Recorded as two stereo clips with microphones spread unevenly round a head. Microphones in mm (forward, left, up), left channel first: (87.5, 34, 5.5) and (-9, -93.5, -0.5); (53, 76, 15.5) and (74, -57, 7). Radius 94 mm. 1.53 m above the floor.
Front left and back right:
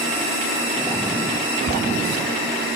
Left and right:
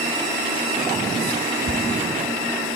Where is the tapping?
120° right, 3.5 m.